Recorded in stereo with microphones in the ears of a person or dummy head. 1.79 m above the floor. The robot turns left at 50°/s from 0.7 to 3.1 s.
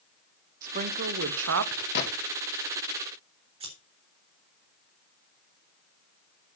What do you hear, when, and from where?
0.6 s a woman speaking: 50° right, 1.2 m; by 1.9 s 105° right, 1.2 m
1.9 s a gunshot: 60° left (ahead or behind), 2.5 m; by 2.1 s 50° left (ahead or behind), 2.5 m
3.6 s scissors: 30° right (ahead or behind), 4 m